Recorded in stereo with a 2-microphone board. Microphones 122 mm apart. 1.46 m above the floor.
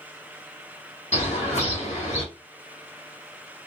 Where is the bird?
55° left (ahead or behind), 2 m.